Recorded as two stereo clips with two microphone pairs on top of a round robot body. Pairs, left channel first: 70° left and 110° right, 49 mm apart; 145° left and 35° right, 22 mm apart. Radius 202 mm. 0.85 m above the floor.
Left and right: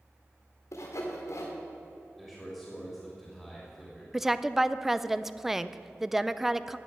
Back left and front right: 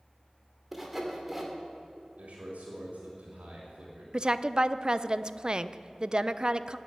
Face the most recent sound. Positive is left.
turn(degrees=-35)